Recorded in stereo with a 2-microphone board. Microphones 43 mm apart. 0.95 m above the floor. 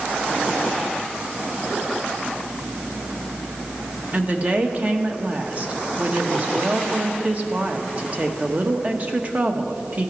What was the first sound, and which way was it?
A woman speaking, 35° right (ahead or behind).